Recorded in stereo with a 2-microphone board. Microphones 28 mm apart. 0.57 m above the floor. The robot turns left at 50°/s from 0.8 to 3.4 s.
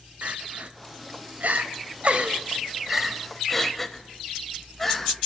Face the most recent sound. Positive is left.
turn(degrees=10)  # may be behind; listen again after turning